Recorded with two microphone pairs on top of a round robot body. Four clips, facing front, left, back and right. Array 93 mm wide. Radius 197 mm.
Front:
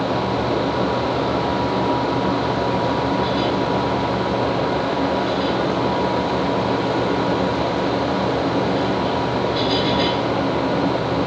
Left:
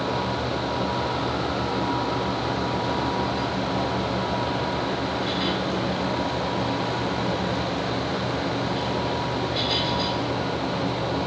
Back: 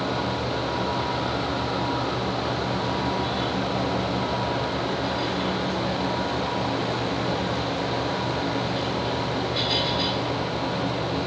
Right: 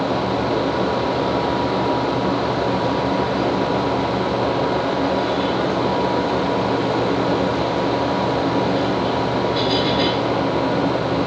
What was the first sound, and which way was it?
Only background noise.